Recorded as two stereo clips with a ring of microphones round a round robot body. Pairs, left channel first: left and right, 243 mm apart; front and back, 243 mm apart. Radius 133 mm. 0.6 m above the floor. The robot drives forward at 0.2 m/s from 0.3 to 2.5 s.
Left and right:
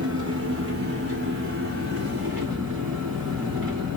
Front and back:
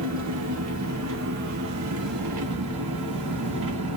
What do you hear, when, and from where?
0.0 s an engine running: 140° right, 1.1 m; by 4.0 s 150° right, 1.5 m